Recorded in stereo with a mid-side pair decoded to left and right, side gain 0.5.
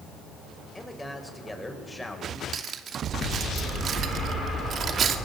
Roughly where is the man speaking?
Ahead.